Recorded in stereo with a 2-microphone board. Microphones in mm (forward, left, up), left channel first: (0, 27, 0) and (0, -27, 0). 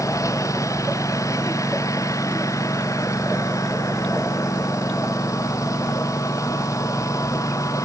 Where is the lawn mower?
85° left; by 7.8 s 80° left.